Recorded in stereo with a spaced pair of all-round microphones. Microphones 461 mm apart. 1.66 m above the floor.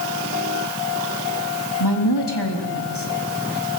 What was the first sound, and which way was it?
A woman speaking, 60° left (ahead or behind).